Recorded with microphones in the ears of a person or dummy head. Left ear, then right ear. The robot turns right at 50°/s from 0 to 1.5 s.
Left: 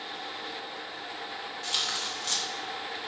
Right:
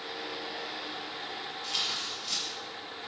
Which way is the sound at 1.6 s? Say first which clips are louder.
Left 2 dB; 65° left (ahead or behind).